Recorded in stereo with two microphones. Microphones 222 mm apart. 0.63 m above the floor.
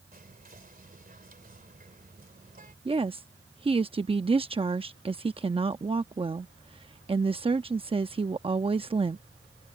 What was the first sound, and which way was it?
Whispering, 40° right (ahead or behind).